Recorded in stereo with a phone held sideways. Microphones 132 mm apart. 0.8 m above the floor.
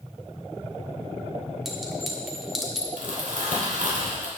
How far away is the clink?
About 1.6 m.